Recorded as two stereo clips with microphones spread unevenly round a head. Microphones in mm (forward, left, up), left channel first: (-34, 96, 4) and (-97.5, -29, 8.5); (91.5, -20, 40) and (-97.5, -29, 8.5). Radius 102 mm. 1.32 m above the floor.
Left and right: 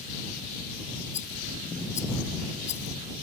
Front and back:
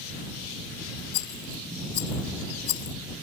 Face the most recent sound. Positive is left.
turn(degrees=5)